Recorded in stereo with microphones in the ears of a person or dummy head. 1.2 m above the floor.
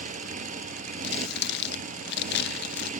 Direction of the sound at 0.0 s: 45° right (ahead or behind).